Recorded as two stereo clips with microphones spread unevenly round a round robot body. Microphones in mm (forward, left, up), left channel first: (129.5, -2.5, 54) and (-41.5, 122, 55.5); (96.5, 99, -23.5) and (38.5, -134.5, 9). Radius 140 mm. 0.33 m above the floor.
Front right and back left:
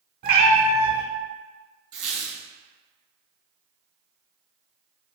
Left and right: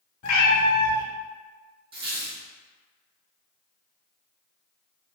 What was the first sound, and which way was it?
A cat meowing, 100° left.